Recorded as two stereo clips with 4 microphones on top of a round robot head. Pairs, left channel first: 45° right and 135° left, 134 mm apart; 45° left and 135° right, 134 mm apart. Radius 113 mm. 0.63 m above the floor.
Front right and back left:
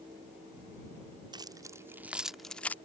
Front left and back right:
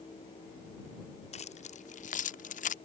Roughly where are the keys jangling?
Left.